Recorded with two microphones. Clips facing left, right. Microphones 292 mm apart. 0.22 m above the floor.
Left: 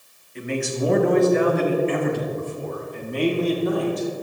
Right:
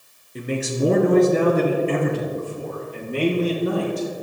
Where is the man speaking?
50° right (ahead or behind), 3.5 m; by 4.1 s 35° right (ahead or behind), 6 m.